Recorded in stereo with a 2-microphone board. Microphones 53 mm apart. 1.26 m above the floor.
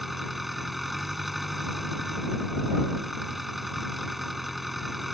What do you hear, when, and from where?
0.0 s an engine running: centre (ahead or behind)